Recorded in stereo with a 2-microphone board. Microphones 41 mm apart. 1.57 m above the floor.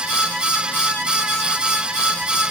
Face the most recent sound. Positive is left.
No sound to turn to.